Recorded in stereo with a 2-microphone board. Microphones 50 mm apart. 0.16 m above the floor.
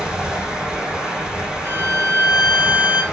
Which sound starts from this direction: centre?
Running water, at 0.0 s.